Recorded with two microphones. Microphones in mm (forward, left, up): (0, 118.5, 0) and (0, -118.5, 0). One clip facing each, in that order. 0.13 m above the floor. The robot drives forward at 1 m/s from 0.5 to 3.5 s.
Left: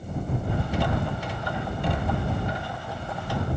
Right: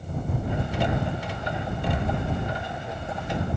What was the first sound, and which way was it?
Only background noise.